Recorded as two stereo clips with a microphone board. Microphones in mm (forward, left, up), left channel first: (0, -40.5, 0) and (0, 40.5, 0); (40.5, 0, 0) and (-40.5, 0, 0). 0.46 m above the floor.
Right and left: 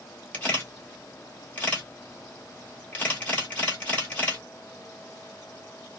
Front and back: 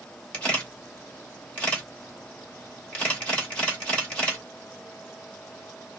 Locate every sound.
0.3 s a camera shutter: 50° right, 1.4 m